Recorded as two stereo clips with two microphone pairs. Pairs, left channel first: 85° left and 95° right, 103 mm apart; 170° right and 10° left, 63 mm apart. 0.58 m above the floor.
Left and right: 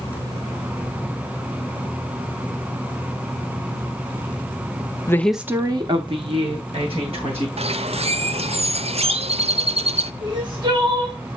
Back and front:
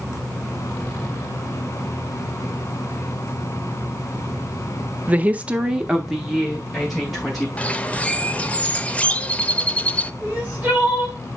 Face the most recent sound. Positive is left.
turn(degrees=-60)